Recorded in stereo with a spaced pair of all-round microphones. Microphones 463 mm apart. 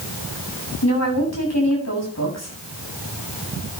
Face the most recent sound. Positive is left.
turn(degrees=35)  # may be behind; listen again after turning